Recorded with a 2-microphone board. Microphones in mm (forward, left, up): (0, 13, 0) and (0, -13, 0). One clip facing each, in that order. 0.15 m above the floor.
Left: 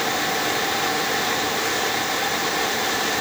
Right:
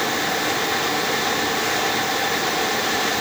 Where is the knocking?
I don't hear knocking.